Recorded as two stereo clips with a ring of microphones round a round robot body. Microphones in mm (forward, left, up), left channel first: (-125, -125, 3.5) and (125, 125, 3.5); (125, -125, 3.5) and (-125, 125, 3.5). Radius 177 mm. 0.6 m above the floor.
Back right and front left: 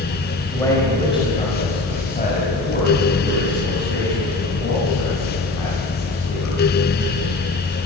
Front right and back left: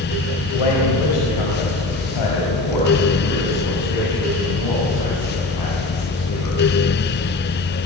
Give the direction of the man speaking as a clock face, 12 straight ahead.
2 o'clock.